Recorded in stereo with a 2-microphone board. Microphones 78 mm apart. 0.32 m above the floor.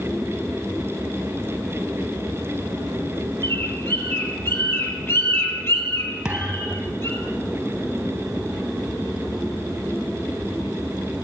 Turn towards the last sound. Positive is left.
turn(degrees=-10)  # may be behind; listen again after turning